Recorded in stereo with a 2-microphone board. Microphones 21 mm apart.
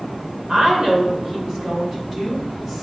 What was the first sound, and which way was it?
A woman speaking, 50° right (ahead or behind).